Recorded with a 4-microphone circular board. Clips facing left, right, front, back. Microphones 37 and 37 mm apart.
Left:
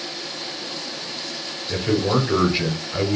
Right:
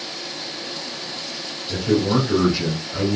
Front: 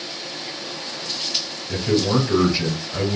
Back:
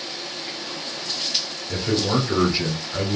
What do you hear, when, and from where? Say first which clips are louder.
1.7 s a man speaking: right 1 dB, front 3 dB; 115° left, 1.1 m